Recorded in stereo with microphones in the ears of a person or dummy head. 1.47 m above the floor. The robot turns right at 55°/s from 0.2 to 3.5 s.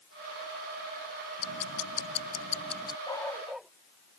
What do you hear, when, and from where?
1.4 s ticking: 75° left; by 3.0 s 160° left
3.1 s a dog barking: 20° left (ahead or behind); by 3.7 s centre (ahead or behind)